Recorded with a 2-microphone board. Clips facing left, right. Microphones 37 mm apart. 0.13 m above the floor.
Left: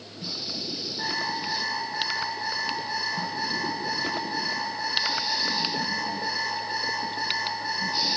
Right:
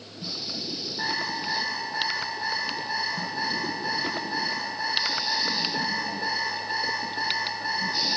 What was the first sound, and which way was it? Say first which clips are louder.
An alarm clock: even; 20° right (ahead or behind).